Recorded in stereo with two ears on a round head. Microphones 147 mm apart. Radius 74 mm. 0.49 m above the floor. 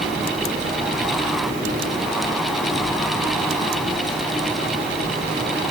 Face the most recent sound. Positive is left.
No sound to turn to.